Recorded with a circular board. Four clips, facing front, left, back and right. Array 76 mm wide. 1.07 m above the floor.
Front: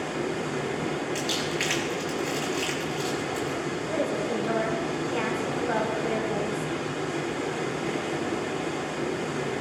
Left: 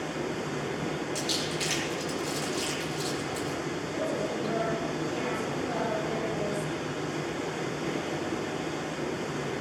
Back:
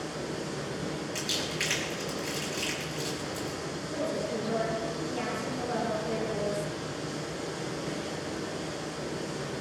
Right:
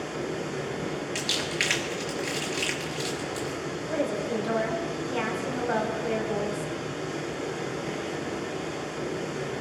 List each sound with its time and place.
0.0 s running water: 5° left, 2.5 m
1.1 s crumpling: 75° right, 4 m
3.9 s a woman speaking: 45° right, 4.5 m